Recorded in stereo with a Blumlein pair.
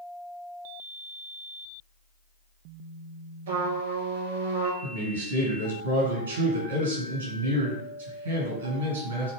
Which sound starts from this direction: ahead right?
A trumpet, at 3.5 s.